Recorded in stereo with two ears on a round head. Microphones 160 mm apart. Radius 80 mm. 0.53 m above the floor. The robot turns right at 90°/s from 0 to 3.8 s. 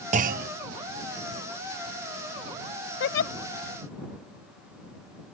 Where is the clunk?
125° right; by 0.5 s 90° right.